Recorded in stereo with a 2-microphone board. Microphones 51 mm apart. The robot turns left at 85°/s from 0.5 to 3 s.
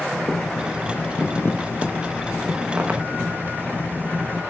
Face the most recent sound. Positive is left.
turn(degrees=-45)